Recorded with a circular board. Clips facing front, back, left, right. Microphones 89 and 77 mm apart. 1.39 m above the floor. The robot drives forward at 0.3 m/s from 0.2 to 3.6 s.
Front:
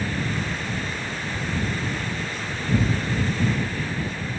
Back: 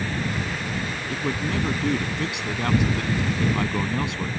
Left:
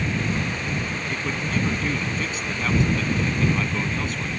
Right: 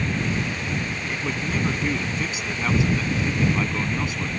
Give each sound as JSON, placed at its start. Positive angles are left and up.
{"t": 1.1, "sound": "a man speaking", "azimuth_deg": -175}